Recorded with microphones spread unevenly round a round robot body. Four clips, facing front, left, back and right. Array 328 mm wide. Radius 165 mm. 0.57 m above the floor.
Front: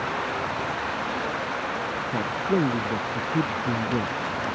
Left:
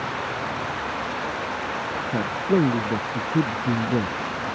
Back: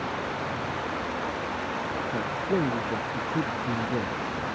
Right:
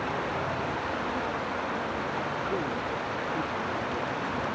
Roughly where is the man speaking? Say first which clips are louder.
Left 8 dB, front 4 dB; left.